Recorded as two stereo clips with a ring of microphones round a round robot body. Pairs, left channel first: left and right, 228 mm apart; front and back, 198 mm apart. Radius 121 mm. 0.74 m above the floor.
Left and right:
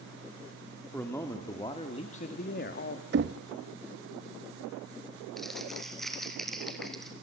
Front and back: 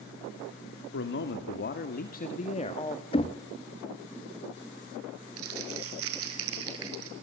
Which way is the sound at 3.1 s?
60° right.